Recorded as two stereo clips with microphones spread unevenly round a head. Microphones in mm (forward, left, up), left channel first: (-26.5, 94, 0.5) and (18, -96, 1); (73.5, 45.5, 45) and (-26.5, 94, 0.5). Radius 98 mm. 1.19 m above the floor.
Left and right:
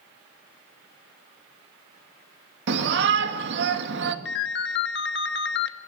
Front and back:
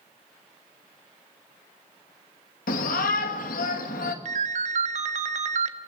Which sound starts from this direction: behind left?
A ringtone, at 4.2 s.